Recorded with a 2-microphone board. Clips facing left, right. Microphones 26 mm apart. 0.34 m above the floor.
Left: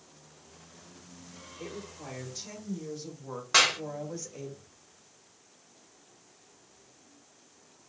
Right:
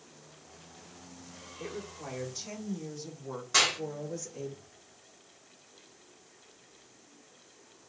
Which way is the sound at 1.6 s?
10° right (ahead or behind).